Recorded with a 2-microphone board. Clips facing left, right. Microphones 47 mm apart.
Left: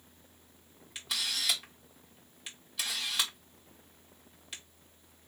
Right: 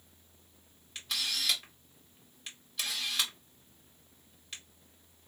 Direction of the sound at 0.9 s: 5° left (ahead or behind).